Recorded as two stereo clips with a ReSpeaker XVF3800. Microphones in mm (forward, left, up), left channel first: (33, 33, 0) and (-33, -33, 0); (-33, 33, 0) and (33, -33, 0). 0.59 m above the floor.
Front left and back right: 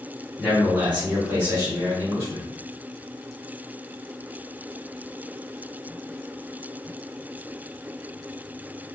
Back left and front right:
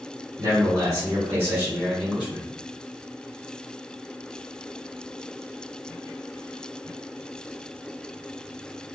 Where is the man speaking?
60° right, 1.6 m; by 2.4 s 120° right, 1.4 m.